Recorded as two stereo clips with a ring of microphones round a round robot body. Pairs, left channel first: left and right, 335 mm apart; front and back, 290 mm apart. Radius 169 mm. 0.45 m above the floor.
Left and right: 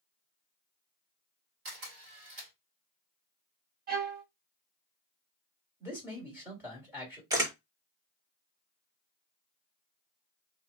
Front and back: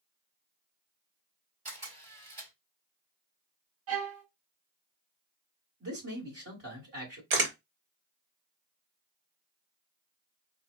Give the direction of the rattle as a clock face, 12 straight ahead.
I don't hear a rattle.